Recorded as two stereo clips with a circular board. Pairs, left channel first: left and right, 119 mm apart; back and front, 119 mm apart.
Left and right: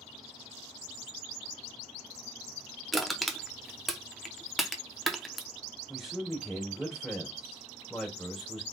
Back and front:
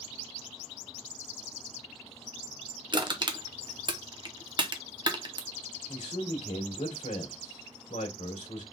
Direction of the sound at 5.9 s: Straight behind.